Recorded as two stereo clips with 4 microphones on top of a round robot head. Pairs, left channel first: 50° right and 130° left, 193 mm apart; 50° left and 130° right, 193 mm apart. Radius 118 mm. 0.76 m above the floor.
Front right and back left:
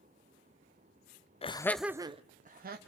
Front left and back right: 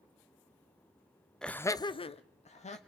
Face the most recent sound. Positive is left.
turn(degrees=100)